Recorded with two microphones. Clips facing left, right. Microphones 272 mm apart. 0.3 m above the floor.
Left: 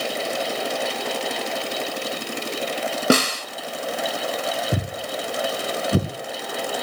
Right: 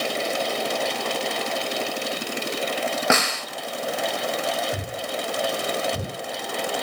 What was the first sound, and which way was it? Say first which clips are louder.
A snare drum: left 9 dB; 35° left (ahead or behind).